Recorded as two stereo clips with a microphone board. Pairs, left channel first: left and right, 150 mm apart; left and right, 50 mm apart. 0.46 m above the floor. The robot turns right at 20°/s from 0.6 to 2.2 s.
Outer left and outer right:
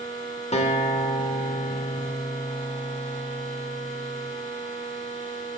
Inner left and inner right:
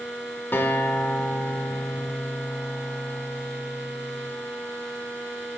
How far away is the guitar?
About 1.2 m.